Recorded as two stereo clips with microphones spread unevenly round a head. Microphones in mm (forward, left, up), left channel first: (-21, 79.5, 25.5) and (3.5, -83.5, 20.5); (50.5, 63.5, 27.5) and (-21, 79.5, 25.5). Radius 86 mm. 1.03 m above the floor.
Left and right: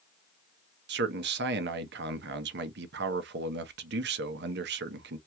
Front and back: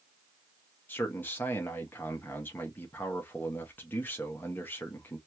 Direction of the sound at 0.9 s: 85° right.